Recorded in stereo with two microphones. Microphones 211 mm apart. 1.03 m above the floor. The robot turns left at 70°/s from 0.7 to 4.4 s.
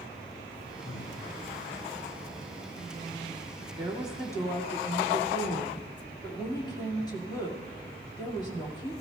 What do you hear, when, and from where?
0.8 s breathing: 65° left (ahead or behind), 2.5 m; by 1.2 s 40° left (ahead or behind), 2.5 m
3.8 s a woman speaking: 155° right, 1.9 m; by 8.9 s 160° left, 1.9 m